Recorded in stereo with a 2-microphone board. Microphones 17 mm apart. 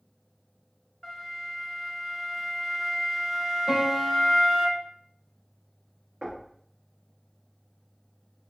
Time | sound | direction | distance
1.0 | a flute | centre (ahead or behind) | 1.2 m
3.7 | a piano | 45° right (ahead or behind) | 2.5 m
6.2 | knocking | 35° right (ahead or behind) | 1.7 m